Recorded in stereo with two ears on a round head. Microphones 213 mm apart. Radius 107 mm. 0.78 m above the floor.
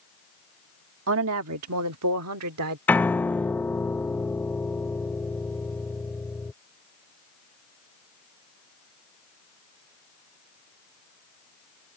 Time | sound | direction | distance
1.1 | a woman speaking | 60° right (ahead or behind) | ?
2.9 | a piano | 10° left (ahead or behind) | ?